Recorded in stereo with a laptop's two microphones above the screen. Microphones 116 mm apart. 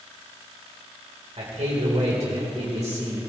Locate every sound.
1.4 s a man speaking: 75° right (ahead or behind), 3 m